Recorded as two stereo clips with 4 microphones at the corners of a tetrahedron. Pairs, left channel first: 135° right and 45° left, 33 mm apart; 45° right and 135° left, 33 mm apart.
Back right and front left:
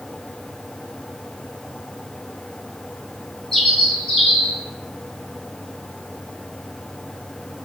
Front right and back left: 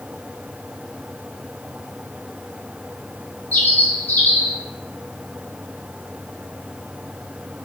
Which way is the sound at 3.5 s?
50° right.